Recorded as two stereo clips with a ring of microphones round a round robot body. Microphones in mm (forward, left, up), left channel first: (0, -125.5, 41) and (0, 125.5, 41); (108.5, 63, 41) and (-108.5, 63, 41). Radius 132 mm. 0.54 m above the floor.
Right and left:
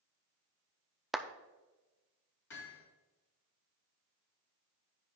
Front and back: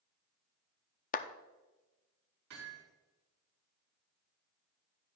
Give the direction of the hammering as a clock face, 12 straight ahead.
4 o'clock.